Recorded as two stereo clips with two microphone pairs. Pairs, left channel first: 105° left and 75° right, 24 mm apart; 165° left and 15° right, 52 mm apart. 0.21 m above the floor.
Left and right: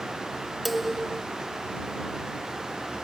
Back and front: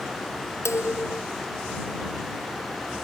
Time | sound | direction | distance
0.7 | dishes clattering | 165° right | ?